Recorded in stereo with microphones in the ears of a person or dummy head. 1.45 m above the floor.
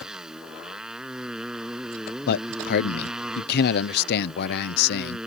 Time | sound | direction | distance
0.0 | a motorcycle | centre (ahead or behind) | ?
2.3 | a man speaking | 55° left (ahead or behind) | ?